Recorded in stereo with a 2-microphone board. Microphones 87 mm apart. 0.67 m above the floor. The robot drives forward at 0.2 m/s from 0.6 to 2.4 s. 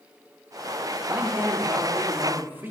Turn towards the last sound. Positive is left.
turn(degrees=-25)  # may be behind; listen again after turning